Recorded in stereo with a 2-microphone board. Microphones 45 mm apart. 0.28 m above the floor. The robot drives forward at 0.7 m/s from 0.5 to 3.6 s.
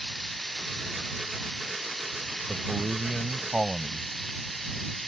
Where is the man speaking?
15° right (ahead or behind).